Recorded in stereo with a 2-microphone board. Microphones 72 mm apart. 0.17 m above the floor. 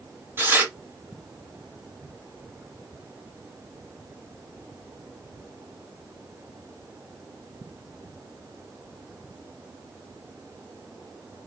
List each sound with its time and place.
0.4 s tearing paper: 30° right (ahead or behind), 1.8 m